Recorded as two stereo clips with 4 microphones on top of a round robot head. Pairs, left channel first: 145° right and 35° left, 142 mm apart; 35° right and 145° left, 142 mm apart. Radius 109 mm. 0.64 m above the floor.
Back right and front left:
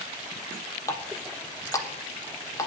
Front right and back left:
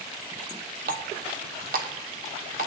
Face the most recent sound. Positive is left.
turn(degrees=150)